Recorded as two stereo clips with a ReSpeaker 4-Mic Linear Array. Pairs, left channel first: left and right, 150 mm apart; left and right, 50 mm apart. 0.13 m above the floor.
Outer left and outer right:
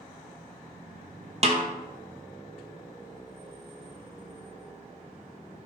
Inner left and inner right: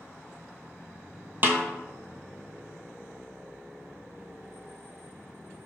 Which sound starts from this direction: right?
A snare drum, at 1.4 s.